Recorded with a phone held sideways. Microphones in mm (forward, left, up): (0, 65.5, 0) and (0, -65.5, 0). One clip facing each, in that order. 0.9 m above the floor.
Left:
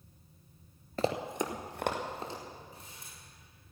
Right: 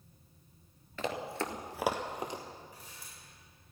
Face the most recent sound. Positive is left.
turn(degrees=25)  # may be behind; listen again after turning